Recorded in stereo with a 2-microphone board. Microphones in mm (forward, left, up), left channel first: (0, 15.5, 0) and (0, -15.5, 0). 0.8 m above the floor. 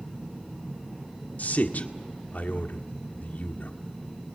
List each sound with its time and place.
1.4 s a man speaking: 60° left (ahead or behind), 1.7 m